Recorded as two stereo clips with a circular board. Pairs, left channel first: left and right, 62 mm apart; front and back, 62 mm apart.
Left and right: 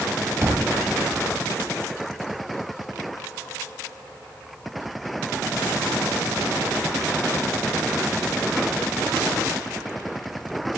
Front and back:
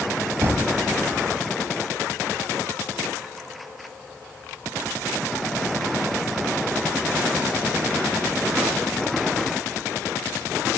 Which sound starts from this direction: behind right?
A thud, at 0.4 s.